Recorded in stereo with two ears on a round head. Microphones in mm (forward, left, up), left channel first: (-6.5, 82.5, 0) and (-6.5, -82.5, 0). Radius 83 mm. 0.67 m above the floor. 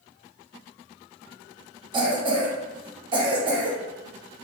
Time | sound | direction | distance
1.9 | a cough | 25° right (ahead or behind) | 1.0 m